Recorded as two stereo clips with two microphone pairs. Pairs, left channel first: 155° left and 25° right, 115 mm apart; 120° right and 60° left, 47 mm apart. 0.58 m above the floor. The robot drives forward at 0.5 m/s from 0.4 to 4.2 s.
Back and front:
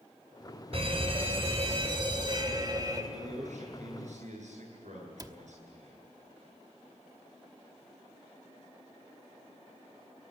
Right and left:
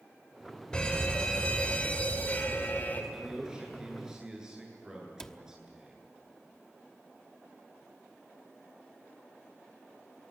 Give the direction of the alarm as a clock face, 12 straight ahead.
2 o'clock.